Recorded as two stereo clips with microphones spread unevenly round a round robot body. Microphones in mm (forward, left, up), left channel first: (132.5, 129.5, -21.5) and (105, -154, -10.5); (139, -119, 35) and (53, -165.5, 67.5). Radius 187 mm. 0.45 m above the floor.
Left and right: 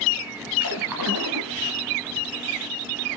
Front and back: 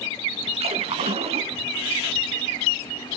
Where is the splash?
150° right, 1.3 m.